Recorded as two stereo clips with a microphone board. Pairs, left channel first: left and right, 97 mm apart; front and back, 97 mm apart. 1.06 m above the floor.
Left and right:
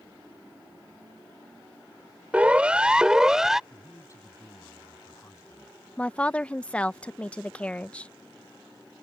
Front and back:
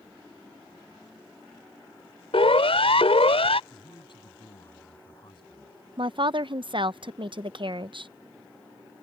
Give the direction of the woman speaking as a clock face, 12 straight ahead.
6 o'clock.